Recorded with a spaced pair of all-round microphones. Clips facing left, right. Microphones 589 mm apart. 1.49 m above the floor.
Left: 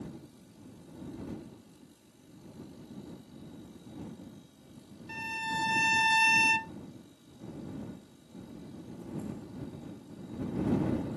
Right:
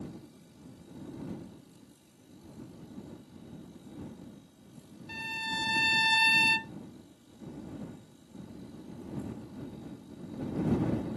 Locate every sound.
5.1 s a violin: 15° right (ahead or behind)